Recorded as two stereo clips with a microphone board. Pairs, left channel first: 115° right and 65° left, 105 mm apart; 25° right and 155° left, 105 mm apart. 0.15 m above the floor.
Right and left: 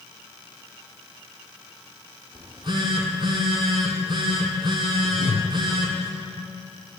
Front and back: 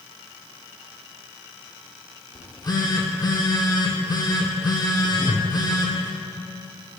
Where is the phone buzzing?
25° left, 1.2 m.